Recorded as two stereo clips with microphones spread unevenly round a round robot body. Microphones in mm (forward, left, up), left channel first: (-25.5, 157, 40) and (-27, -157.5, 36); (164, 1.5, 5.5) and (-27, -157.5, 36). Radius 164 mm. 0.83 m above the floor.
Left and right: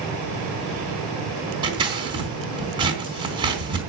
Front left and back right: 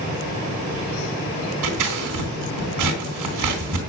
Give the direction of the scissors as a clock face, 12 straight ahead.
6 o'clock.